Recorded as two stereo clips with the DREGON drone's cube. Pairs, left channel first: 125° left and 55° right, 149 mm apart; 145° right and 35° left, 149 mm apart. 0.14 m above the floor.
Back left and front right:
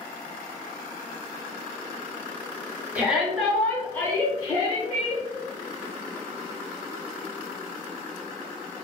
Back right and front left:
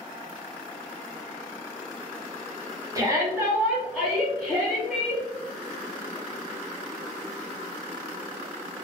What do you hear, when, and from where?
3.0 s a shout: 10° left, 1.1 m; by 5.2 s 145° left, 1.3 m